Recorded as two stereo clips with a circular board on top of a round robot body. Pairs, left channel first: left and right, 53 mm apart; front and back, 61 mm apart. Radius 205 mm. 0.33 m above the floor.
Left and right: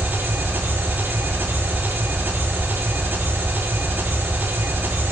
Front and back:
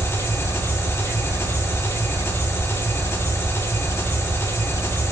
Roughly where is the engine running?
Ahead right.